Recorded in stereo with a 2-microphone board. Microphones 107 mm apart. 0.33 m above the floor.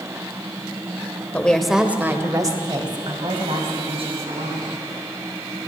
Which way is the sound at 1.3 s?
15° left (ahead or behind).